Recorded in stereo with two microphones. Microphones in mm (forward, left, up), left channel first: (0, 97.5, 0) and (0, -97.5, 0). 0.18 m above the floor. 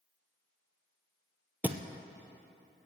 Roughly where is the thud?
Centre.